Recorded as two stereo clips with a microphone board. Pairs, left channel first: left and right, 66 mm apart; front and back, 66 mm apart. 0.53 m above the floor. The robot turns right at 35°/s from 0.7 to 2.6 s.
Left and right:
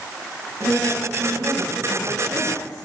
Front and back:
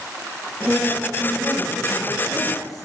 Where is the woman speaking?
115° right, 6.5 m; by 2.9 s 50° right, 6.5 m.